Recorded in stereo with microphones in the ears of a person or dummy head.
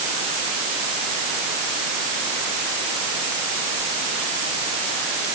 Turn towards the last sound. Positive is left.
No sound to turn to.